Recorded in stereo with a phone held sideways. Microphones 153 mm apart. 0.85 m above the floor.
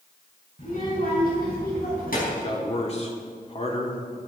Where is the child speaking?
75° left (ahead or behind), 4.5 m.